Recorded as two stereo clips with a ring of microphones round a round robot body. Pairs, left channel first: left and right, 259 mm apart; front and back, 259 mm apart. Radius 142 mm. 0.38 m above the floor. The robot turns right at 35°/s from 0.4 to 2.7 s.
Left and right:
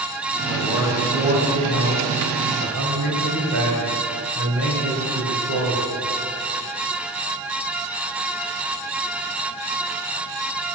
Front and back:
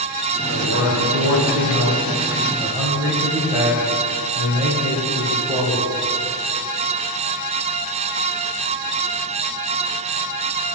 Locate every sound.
0.5 s a man speaking: 170° left, 2.0 m; by 5.9 s 110° right, 2.0 m